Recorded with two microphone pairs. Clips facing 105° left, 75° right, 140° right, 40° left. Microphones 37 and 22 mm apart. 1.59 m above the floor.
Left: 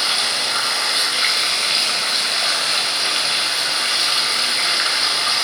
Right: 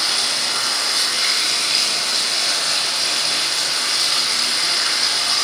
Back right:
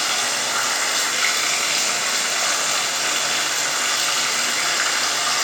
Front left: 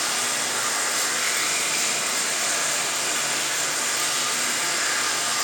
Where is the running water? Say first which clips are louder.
Left 1 dB, back right 4 dB; 170° left, 3.5 m.